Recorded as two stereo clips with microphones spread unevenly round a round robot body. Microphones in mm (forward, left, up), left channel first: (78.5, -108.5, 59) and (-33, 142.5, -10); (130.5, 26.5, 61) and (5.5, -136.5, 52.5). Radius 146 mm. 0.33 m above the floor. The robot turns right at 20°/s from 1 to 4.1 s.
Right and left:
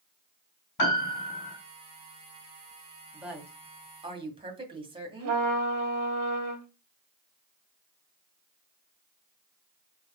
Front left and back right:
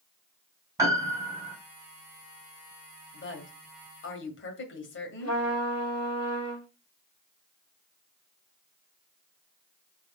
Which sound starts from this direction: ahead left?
A woman speaking, at 3.1 s.